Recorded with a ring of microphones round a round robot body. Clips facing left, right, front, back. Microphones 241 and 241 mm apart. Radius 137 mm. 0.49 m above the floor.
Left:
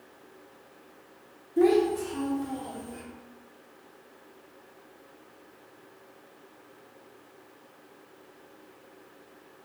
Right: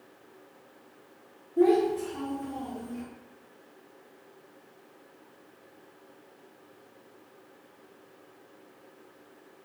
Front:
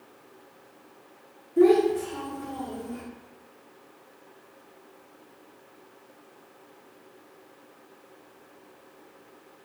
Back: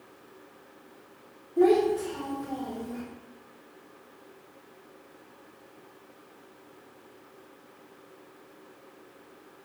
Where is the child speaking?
50° left, 0.6 m; by 3.0 s 55° left, 1.4 m.